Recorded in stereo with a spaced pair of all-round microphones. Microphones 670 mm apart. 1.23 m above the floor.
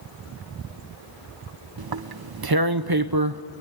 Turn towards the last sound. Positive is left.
turn(degrees=-35)  # may be behind; listen again after turning